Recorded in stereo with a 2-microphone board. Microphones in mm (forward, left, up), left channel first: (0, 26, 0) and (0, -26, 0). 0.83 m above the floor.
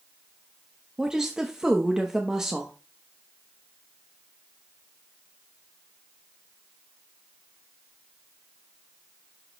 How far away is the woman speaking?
About 0.8 m.